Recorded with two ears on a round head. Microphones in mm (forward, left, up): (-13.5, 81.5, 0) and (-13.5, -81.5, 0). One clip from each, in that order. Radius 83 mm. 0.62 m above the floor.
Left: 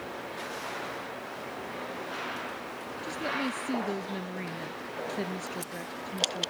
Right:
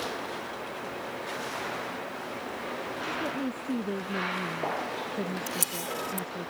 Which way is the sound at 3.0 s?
85° left.